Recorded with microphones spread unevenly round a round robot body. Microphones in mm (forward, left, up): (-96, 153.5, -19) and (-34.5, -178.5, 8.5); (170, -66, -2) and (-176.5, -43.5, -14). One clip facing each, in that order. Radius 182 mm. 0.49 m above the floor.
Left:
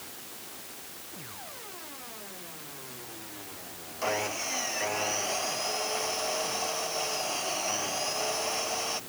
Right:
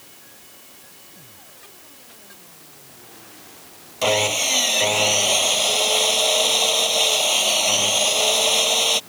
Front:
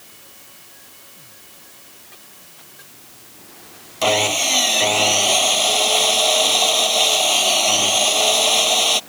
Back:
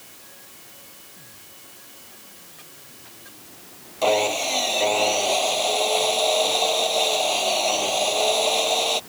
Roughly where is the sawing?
Ahead right.